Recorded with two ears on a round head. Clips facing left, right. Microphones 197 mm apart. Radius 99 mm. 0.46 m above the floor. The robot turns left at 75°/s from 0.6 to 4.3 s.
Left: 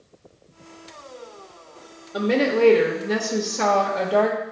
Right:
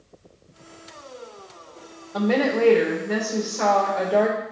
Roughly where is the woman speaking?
Behind.